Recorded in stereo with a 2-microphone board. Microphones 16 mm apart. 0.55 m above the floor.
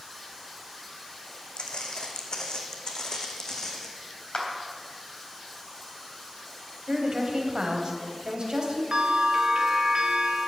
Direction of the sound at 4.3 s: 60° left (ahead or behind).